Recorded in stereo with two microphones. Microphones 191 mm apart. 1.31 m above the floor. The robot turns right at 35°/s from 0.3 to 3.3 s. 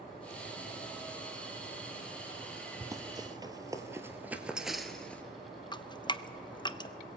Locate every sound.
2.8 s running footsteps: 15° right (ahead or behind), 1.9 m; by 5.2 s 10° left (ahead or behind), 1.3 m
5.7 s dripping: 25° left (ahead or behind), 0.5 m